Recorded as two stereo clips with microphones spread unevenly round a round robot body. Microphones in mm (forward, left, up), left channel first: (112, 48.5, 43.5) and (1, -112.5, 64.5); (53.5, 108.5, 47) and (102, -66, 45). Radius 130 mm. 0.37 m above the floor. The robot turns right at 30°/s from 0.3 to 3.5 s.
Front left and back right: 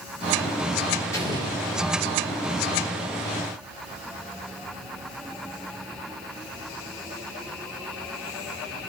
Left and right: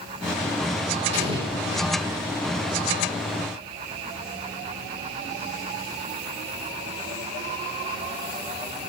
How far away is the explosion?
About 3.5 m.